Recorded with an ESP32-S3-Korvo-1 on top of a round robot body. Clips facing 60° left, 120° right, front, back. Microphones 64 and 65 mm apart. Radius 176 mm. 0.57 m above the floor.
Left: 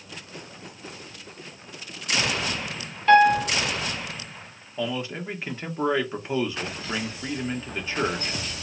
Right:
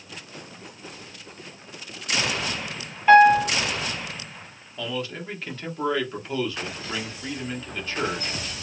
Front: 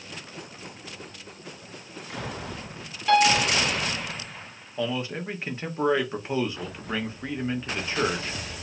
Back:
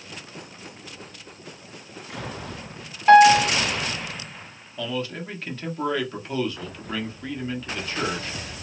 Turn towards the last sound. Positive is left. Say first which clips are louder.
# left 2 dB, front 1 dB
turn(degrees=25)